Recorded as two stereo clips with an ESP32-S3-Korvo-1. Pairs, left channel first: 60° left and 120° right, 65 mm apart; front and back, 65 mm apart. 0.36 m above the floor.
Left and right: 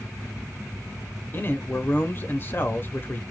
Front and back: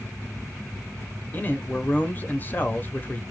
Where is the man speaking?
35° left, 1.0 m.